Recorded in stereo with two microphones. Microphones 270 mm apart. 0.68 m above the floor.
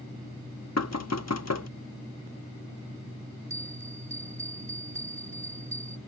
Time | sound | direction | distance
0.8 | knocking | 65° left (ahead or behind) | ?
3.5 | a bell | 65° right (ahead or behind) | ?